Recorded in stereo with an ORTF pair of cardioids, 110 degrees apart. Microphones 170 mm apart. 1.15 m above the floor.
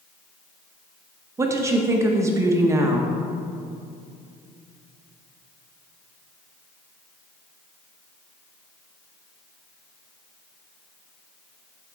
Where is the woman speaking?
20° right, 0.9 m.